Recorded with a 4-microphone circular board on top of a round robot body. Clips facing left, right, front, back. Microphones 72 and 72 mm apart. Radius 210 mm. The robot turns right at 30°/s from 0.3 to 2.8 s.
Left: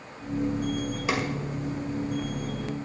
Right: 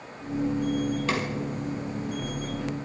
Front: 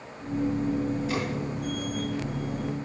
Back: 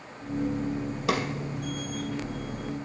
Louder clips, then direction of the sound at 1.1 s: Left 3 dB, back 3 dB; 170° left.